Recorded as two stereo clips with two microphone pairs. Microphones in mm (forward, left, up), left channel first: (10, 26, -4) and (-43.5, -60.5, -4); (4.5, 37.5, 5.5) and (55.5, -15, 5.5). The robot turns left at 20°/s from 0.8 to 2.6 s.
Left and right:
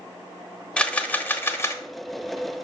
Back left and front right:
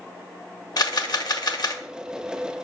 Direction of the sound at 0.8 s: 140° left.